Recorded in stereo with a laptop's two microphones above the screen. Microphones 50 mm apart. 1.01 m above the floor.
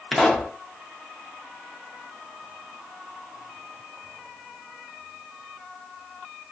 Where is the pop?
Centre (ahead or behind), 0.5 m.